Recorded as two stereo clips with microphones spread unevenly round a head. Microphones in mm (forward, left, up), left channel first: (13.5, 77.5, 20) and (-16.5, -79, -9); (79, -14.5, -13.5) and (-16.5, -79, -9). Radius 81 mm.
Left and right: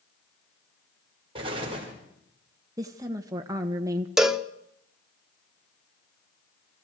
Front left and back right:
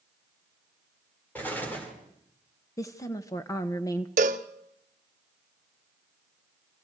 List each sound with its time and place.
1.4 s an explosion: 40° right, 5 m
2.8 s a woman speaking: 30° right, 1.0 m
4.2 s a cowbell: 170° left, 0.8 m